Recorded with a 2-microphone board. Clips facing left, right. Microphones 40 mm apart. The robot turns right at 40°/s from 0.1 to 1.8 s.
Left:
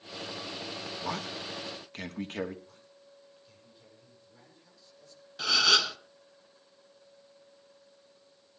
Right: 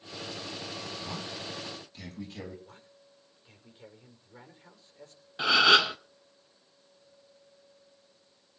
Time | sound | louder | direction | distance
1.0 | a man speaking | left 3 dB | 90° left | 3 m
2.6 | a man speaking | right 1 dB | 40° right (ahead or behind) | 5 m
5.4 | a gasp | right 5 dB | 25° right (ahead or behind) | 1.0 m